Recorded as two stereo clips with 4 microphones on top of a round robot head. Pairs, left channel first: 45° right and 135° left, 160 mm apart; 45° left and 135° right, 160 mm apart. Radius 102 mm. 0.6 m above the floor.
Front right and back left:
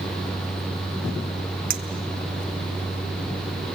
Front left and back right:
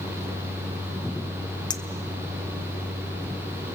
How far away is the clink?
About 1.3 m.